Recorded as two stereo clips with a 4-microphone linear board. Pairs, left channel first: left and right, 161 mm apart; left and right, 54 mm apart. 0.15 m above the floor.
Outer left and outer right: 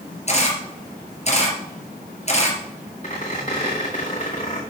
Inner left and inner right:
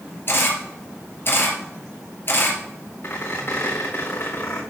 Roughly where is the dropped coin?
No dropped coin in this recording.